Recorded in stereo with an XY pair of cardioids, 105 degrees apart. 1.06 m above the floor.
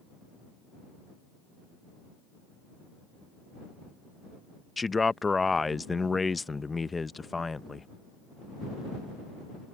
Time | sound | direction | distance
4.8 | a man speaking | 25° left | ?